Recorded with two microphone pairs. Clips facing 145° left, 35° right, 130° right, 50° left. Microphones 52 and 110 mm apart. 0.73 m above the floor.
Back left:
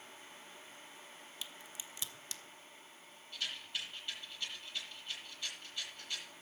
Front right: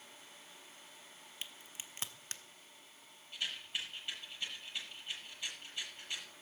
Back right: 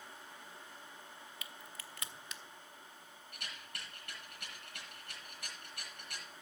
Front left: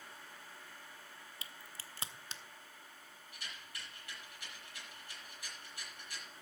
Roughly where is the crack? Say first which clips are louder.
Front right 1 dB, back right 2 dB; ahead.